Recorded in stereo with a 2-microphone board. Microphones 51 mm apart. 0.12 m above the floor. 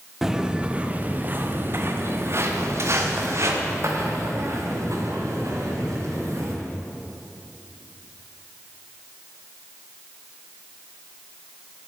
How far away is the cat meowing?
No cat meowing in this recording.